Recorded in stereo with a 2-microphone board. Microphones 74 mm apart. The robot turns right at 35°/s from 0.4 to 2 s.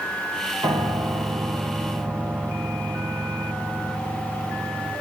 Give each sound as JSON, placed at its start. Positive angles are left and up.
{"t": 0.6, "sound": "a piano", "azimuth_deg": -85, "distance_m": 7.5}